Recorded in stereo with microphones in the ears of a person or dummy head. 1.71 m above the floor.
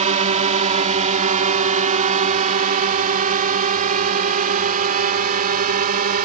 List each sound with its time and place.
0.0 s a drone: 35° right (ahead or behind); by 6.3 s 45° right (ahead or behind)